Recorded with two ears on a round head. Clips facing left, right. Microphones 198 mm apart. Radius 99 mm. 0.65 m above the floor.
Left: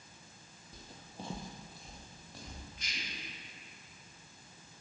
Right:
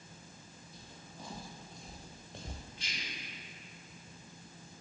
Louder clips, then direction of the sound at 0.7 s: Left 4 dB; 40° left (ahead or behind).